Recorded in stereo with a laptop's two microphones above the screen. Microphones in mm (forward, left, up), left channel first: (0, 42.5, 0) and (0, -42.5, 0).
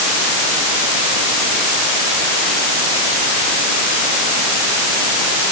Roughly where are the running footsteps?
No running footsteps in this recording.